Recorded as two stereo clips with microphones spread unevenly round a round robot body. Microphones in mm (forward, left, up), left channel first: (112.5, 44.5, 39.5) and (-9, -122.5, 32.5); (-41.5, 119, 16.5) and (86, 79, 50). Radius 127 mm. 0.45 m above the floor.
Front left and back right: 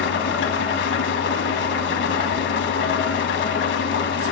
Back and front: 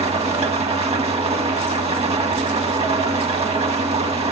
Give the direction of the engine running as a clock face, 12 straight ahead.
11 o'clock.